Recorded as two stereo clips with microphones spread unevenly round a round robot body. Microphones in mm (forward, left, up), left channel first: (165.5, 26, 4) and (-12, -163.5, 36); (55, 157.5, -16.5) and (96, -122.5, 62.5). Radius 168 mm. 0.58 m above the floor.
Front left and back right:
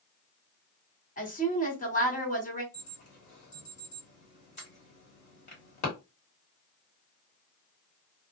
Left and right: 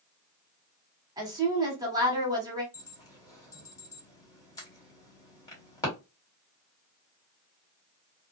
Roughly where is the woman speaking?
Ahead.